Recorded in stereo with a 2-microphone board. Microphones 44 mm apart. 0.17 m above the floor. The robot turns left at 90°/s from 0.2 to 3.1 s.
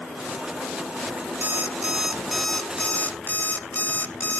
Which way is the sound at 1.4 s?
100° right.